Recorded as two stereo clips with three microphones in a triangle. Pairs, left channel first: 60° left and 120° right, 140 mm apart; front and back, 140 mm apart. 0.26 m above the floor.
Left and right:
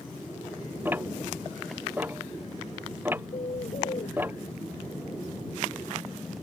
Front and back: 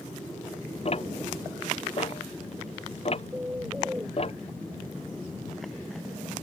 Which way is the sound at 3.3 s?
100° left.